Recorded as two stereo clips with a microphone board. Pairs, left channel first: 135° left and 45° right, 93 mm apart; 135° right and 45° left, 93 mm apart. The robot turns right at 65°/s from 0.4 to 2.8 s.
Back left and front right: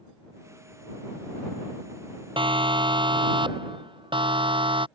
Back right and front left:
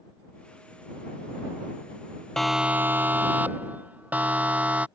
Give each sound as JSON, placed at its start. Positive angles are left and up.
{"t": 2.4, "sound": "a siren", "azimuth_deg": -50}